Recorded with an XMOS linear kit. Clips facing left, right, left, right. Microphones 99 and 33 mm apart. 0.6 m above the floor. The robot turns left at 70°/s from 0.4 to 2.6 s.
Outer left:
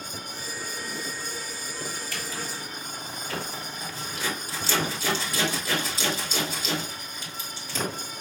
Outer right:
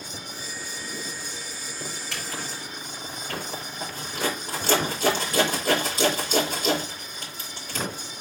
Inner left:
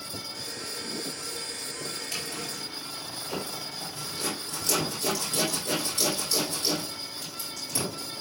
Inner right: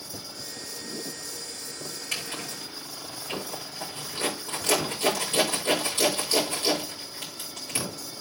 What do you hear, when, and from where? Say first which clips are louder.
2.1 s a zipper: even, inner right 1 dB; 85° right, 6.5 m; by 7.8 s 50° right (ahead or behind), 6.5 m